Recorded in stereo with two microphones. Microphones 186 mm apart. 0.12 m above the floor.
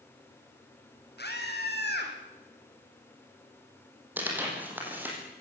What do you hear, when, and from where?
1.2 s a scream: 65° left (ahead or behind), 5 m
4.2 s tearing paper: 10° right (ahead or behind), 6 m